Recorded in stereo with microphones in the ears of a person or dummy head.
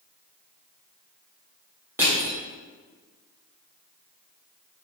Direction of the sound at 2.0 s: 15° right (ahead or behind).